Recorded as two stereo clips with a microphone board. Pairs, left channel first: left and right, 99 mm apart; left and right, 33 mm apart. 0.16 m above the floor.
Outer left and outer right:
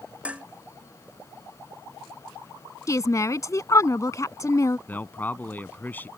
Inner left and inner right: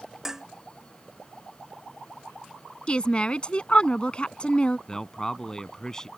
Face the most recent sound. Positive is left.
turn(degrees=20)  # may be behind; listen again after turning